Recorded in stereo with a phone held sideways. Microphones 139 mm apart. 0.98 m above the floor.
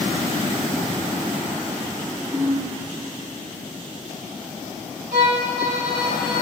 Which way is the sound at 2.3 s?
55° right (ahead or behind).